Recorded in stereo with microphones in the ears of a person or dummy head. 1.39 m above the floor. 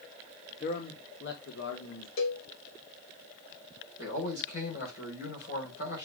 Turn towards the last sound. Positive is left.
turn(degrees=60)  # may be behind; listen again after turning